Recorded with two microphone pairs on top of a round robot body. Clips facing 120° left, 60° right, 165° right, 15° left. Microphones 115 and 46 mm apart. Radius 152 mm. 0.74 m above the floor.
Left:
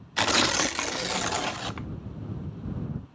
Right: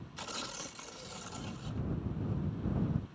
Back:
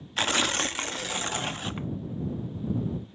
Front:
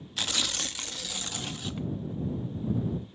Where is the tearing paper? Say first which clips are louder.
Left 20 dB, back 6 dB; 140° left.